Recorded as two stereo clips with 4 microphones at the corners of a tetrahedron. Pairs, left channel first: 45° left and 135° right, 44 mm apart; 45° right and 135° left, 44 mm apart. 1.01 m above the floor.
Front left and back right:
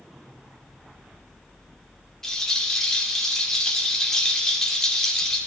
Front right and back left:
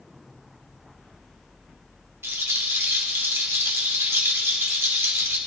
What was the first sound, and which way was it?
A rattle, 125° left.